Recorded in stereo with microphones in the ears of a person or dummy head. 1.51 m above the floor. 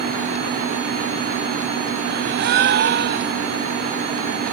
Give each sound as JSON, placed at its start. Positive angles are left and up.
{"t": 2.1, "sound": "a gasp", "side_deg": -45}